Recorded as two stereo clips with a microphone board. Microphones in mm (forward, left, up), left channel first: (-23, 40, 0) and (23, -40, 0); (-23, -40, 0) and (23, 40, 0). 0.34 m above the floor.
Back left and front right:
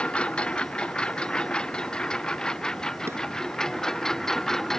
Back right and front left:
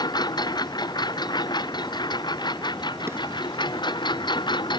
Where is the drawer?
Straight ahead.